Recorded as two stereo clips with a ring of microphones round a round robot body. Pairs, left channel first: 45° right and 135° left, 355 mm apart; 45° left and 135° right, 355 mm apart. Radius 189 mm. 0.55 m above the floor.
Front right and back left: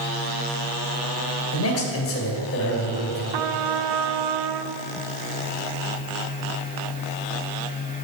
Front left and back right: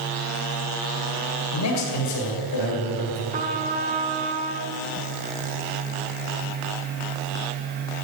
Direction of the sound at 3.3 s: 155° left.